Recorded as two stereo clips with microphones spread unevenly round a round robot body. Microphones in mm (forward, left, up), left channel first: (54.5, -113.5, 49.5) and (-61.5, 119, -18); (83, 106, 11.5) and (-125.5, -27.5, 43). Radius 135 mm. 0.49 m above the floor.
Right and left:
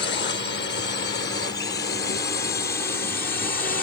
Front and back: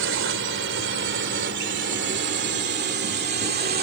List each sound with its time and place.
0.0 s a drone: 115° right; by 3.8 s 120° right